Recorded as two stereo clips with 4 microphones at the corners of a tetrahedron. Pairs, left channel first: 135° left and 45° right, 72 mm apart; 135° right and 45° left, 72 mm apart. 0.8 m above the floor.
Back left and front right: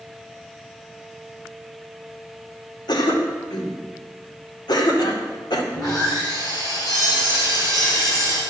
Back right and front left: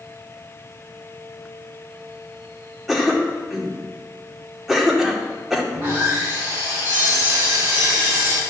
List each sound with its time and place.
2.9 s a cough: 130° left, 2 m
5.7 s sawing: 110° left, 5.5 m